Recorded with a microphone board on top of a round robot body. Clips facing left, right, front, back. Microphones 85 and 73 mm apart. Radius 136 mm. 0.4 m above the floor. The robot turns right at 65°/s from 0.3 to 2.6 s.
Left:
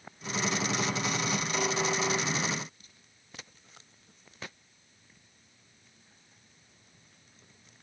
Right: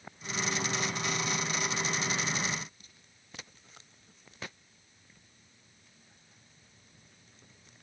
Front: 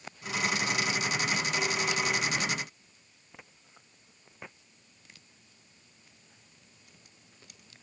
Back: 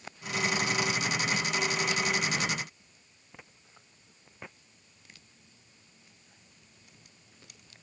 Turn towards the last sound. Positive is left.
No sound to turn to.